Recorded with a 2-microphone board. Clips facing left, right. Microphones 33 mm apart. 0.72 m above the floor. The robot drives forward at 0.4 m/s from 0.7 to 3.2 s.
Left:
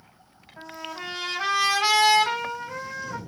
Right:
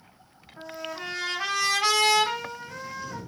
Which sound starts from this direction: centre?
A trumpet, at 0.6 s.